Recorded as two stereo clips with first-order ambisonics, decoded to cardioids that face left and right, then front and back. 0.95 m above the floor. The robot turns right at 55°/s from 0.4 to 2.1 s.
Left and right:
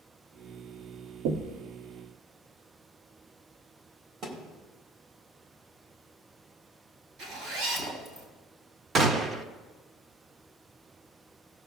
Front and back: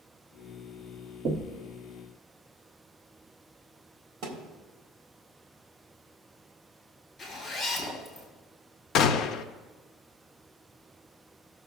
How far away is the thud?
About 1.6 m.